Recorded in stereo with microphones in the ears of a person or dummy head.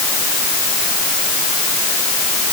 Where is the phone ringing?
No phone ringing in this recording.